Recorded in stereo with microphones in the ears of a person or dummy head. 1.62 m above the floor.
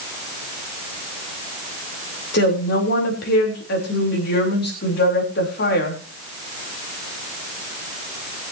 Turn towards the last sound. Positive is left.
turn(degrees=60)  # may be behind; listen again after turning